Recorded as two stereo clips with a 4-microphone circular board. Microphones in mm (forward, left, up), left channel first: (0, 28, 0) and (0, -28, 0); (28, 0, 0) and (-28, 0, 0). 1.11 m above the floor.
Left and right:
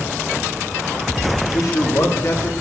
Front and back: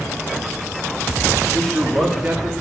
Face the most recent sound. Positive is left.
turn(degrees=110)